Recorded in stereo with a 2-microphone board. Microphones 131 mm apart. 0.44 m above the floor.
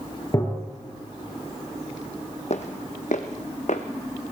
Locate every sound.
0.3 s tapping: 30° left (ahead or behind), 3.5 m
2.5 s footsteps: 60° left (ahead or behind), 1.0 m; by 3.8 s 65° left (ahead or behind), 1.3 m